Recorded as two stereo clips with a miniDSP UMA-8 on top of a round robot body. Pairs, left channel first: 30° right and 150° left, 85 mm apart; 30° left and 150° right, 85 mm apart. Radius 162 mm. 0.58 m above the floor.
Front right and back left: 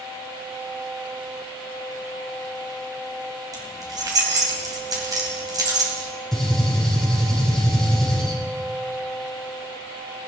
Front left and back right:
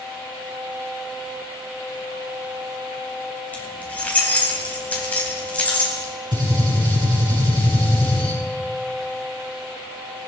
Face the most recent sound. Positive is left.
turn(degrees=-115)